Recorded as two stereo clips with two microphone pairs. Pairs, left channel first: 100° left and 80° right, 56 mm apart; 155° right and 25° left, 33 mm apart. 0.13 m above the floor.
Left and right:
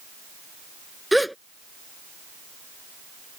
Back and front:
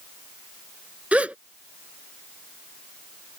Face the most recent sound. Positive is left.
turn(degrees=10)